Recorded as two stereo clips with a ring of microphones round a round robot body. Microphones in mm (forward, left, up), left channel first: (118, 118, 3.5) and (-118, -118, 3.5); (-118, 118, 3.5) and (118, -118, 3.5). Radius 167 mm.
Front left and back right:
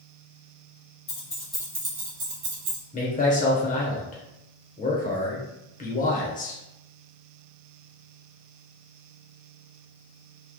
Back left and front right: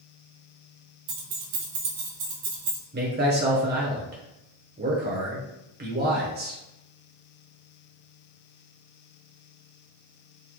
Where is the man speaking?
5° right, 0.9 m.